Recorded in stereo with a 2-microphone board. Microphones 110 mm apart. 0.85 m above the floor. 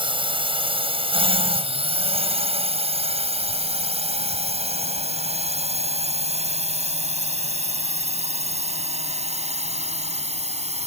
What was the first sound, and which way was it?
A drone, 50° right (ahead or behind).